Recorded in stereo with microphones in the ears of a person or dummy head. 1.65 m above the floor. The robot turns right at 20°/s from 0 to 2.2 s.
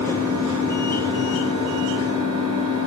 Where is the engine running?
135° right, 7.5 m; by 2.9 s 90° right, 7.5 m.